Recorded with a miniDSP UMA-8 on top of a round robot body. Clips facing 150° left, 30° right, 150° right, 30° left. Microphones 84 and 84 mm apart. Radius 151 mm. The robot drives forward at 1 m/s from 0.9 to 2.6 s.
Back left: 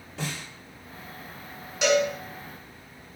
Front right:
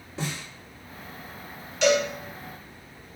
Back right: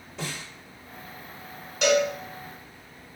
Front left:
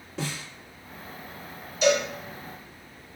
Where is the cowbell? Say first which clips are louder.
Even, back right 1 dB; 135° right, 1.8 m; by 2.1 s 140° right, 2.0 m.